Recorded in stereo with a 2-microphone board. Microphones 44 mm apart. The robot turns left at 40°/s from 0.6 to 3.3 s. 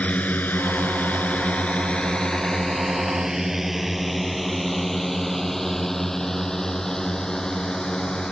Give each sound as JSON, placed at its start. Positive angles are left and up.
{"t": 0.0, "sound": "a drone", "side_deg": 35}